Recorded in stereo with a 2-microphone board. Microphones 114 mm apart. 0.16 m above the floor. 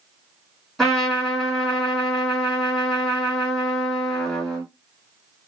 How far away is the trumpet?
About 1.7 m.